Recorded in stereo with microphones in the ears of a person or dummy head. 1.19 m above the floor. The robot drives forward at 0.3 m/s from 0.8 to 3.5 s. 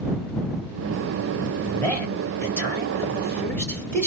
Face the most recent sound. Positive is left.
turn(degrees=10)  # may be behind; listen again after turning